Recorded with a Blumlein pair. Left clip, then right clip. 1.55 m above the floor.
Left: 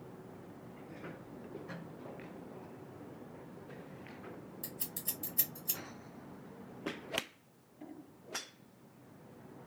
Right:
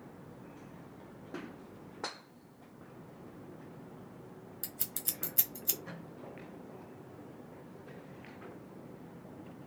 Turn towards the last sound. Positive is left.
turn(degrees=-30)